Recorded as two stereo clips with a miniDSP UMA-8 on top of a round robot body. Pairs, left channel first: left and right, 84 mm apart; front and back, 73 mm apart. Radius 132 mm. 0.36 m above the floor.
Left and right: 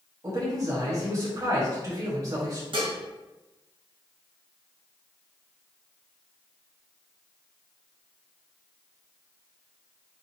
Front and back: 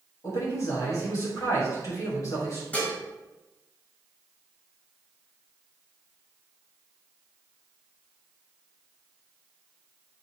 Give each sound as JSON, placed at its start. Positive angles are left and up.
{"t": 0.2, "sound": "a man speaking", "azimuth_deg": -40, "distance_m": 3.0}
{"t": 2.7, "sound": "dishes clattering", "azimuth_deg": -70, "distance_m": 2.5}